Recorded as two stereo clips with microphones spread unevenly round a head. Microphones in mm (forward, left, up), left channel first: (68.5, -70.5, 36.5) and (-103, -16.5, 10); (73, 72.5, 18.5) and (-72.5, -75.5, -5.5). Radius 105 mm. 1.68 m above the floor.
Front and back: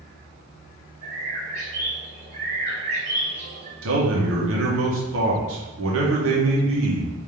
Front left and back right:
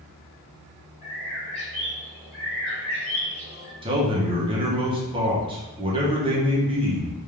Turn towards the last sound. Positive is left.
turn(degrees=155)